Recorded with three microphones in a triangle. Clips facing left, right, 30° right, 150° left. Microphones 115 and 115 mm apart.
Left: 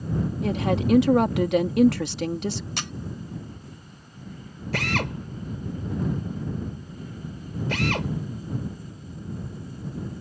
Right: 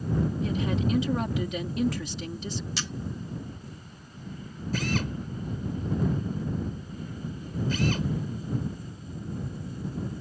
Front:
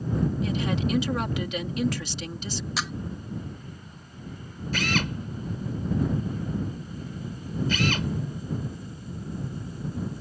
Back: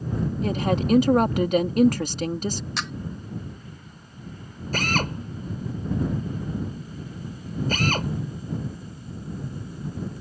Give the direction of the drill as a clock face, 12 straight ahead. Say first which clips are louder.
Left 2 dB, back 2 dB; 9 o'clock.